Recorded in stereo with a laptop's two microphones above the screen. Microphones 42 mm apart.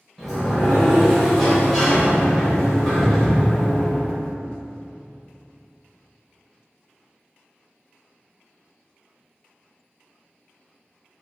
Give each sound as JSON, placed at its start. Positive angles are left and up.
{"t": 0.2, "sound": "a sliding door", "side_deg": 5, "distance_m": 1.2}